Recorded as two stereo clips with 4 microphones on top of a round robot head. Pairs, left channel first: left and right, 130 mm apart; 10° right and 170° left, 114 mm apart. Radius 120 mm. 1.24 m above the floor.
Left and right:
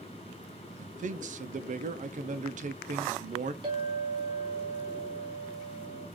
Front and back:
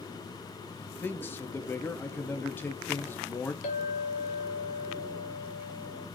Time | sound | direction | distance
0.8 | a man speaking | 80° right | 0.5 m
3.6 | a clink | 30° right | 0.6 m